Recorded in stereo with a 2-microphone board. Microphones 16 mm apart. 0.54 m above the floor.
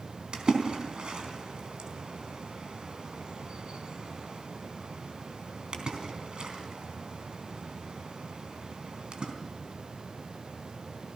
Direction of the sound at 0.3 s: 65° right (ahead or behind).